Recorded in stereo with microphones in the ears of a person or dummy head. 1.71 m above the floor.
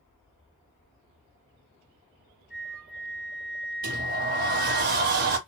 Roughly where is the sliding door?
Right.